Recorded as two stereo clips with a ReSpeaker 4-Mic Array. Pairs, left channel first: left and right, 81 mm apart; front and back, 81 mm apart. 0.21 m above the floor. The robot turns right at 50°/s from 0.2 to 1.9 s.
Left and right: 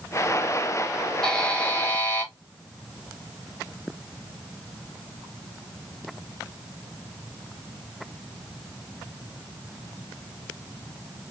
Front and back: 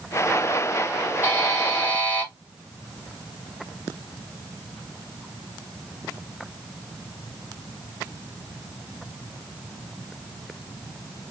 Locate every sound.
1.2 s a buzzer: 15° left, 1.3 m; by 2.3 s 50° left, 1.3 m